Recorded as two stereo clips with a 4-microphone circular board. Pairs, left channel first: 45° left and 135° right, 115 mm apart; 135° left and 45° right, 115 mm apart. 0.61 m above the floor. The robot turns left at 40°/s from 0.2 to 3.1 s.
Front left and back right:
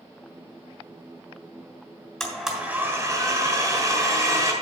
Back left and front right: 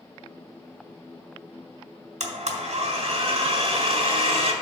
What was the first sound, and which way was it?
A blender, 40° right.